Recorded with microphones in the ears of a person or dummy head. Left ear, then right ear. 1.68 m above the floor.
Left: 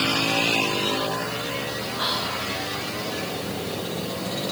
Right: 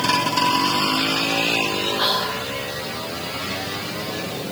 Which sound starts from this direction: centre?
Whispering, at 2.0 s.